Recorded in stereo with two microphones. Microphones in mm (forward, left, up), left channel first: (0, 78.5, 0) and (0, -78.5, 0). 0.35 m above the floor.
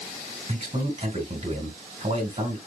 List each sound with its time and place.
0.5 s a man speaking: 45° right (ahead or behind), 3 m